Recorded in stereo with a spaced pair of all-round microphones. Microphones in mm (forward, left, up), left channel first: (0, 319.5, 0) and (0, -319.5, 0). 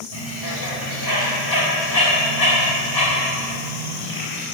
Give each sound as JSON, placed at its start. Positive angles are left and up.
{"t": 0.1, "sound": "a bird", "side_deg": 35, "distance_m": 3.0}